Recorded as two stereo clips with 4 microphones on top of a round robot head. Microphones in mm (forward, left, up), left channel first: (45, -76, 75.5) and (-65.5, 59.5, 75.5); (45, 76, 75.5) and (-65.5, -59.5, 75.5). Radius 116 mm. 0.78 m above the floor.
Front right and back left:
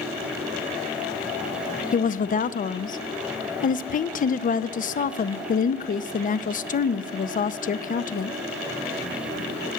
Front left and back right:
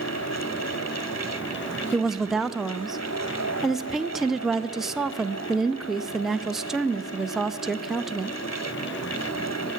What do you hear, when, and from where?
1.9 s a woman speaking: 40° right, 0.6 m